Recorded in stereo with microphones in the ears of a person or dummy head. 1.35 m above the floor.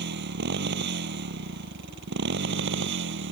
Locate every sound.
0.0 s a motorcycle: 60° right (ahead or behind); by 3.3 s 65° right (ahead or behind)